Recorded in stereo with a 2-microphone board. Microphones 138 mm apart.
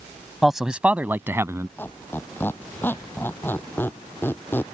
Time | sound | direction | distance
0.4 | a man speaking | centre (ahead or behind) | ?
1.8 | a squeak | 15° left (ahead or behind) | ?